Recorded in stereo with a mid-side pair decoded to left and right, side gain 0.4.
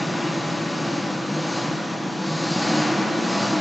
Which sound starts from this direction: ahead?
An engine running, at 0.0 s.